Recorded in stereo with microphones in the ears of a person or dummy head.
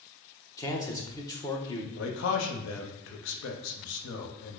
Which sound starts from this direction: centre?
A man speaking, at 0.6 s.